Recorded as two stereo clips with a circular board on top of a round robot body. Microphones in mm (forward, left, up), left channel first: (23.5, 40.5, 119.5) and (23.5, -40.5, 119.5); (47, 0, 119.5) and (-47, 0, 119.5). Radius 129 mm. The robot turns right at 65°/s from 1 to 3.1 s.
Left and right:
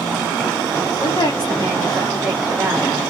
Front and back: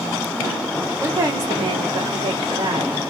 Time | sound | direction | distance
1.0 | a woman speaking | 100° left | 2.5 m